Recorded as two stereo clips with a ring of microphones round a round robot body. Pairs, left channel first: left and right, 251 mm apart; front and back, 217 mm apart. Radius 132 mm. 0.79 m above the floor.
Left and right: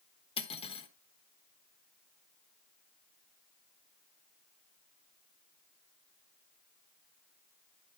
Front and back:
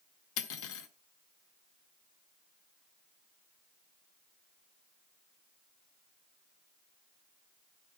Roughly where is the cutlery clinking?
Ahead.